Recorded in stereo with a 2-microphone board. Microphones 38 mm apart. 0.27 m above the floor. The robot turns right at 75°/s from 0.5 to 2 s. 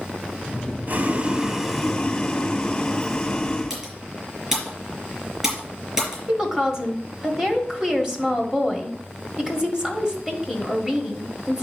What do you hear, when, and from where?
0.9 s boiling: 70° right, 1.1 m; by 3.8 s 15° left, 1.1 m
3.7 s typing on a keyboard: 15° right (ahead or behind), 4 m
6.3 s a woman speaking: 20° right (ahead or behind), 1.4 m